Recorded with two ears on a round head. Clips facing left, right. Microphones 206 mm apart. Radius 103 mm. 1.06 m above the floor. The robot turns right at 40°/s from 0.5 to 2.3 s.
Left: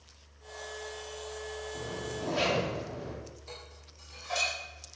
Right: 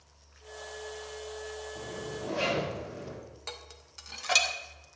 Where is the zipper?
75° left (ahead or behind), 3 m; by 3.1 s 80° left, 3 m.